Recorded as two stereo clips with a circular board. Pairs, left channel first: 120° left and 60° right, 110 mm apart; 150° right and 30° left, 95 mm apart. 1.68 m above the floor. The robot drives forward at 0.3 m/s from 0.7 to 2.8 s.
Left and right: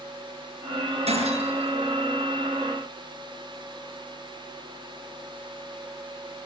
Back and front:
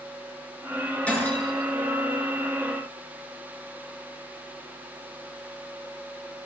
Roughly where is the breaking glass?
Right.